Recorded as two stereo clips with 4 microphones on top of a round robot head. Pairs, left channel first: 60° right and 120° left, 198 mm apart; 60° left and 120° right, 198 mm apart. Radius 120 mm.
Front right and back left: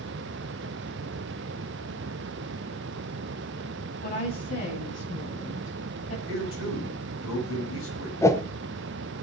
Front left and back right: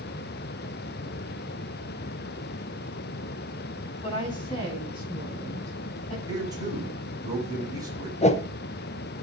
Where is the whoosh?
15° left, 1.0 m.